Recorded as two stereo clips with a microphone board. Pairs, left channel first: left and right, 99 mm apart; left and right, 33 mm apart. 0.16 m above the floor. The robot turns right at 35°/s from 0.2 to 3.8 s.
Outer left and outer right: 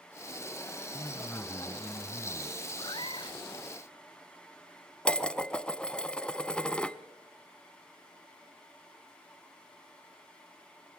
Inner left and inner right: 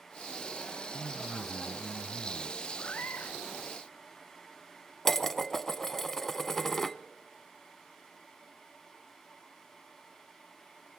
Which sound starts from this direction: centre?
Dishes clattering, at 5.0 s.